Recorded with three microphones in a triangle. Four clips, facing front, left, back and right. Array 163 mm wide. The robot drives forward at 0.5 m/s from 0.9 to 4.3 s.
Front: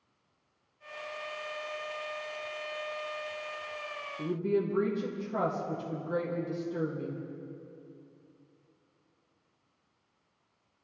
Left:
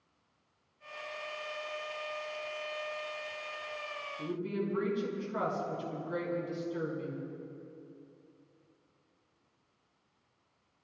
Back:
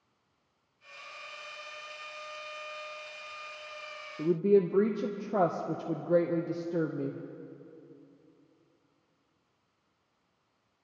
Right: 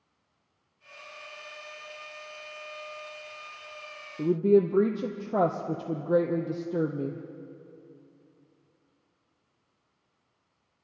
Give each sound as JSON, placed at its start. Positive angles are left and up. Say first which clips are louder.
{"t": 4.2, "sound": "a woman speaking", "louder": "right 15 dB, back 6 dB", "azimuth_deg": -120, "distance_m": 0.7}